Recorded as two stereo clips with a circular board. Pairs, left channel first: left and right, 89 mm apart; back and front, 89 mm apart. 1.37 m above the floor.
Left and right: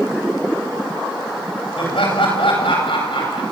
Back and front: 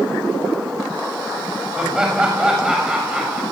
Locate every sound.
1.8 s laughter: 80° left, 10 m